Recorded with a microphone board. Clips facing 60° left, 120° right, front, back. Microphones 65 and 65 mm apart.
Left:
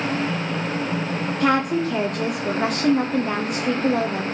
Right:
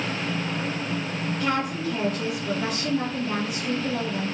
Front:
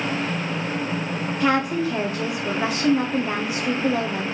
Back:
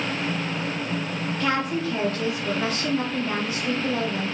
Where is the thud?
I don't hear a thud.